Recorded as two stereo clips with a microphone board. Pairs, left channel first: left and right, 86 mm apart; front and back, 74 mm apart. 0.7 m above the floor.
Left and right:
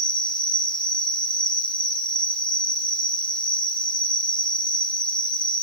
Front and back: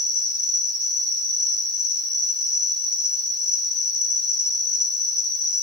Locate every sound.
0.0 s an insect: 175° left, 6 m